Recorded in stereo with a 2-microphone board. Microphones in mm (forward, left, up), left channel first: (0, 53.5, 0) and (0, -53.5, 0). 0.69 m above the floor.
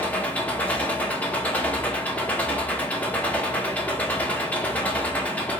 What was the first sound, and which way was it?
An engine running, 15° left (ahead or behind).